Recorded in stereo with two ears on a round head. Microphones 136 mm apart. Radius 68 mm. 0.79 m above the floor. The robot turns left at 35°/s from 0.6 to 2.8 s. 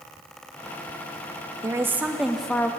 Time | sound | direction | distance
1.6 | a woman speaking | 155° right | 0.6 m